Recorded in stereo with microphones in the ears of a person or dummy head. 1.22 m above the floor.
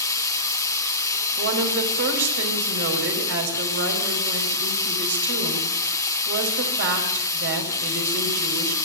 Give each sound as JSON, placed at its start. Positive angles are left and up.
{"t": 0.0, "sound": "running water", "side_deg": 10, "distance_m": 1.4}
{"t": 1.4, "sound": "a woman speaking", "side_deg": -55, "distance_m": 5.0}